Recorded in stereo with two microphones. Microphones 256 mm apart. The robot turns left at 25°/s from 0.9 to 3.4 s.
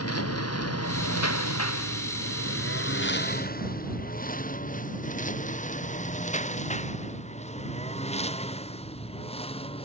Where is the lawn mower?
65° left (ahead or behind); by 9.9 s 20° left (ahead or behind).